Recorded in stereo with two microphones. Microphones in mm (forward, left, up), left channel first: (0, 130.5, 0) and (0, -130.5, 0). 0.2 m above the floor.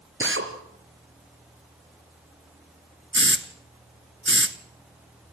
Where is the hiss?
50° right (ahead or behind), 1.4 m.